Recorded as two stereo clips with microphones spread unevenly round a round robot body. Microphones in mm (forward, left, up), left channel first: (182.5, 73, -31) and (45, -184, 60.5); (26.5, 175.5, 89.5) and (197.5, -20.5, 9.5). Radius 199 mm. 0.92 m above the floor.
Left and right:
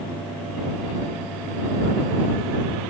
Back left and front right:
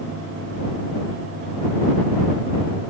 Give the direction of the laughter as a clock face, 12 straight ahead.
I don't hear laughter.